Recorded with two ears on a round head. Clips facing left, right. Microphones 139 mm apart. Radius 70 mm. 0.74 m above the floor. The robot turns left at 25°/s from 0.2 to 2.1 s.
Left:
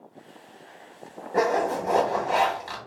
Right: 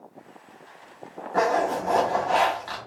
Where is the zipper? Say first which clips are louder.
Even; 15° left (ahead or behind), 1.0 m; by 2.8 s 10° left (ahead or behind), 1.0 m.